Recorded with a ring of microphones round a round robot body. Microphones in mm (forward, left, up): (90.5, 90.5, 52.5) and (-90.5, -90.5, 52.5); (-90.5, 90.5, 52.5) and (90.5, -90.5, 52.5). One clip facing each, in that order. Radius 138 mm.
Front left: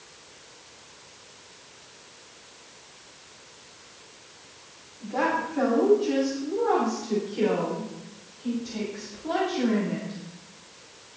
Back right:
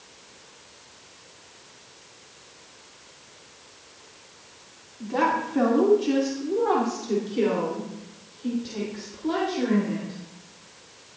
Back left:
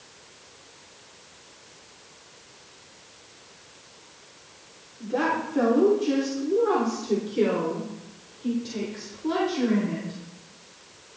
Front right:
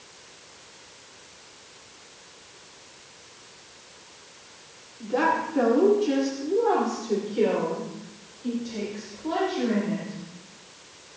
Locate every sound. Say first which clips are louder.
5.0 s a woman speaking: back right 2 dB, front right 1 dB; 130° right, 2.5 m; by 10.2 s straight behind, 4.5 m